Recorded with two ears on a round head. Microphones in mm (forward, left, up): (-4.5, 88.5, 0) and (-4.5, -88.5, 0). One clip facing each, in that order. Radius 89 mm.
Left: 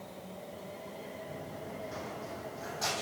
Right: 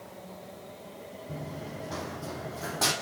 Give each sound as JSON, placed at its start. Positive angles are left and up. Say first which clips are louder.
{"t": 1.3, "sound": "running footsteps", "louder": "right 3 dB", "side_deg": -60, "distance_m": 3.5}